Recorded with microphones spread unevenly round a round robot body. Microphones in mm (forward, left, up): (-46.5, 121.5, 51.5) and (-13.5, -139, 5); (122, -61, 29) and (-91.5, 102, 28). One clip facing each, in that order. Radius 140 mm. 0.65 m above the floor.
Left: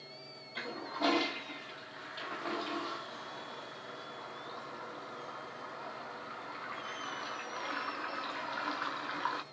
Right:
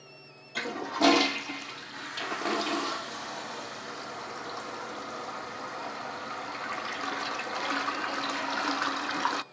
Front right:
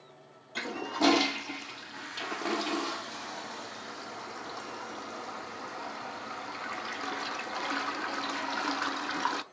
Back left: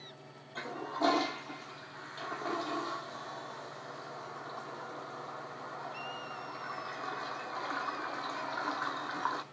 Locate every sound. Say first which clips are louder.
0.6 s a toilet flushing: right 9 dB, front right 5 dB; 85° right, 0.6 m